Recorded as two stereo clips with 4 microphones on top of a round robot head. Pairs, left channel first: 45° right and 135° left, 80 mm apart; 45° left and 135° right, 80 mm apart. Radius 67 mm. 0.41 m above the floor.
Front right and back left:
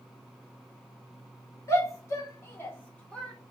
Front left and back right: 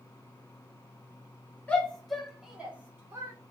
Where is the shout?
25° right, 1.6 m; by 3.3 s 115° right, 1.5 m.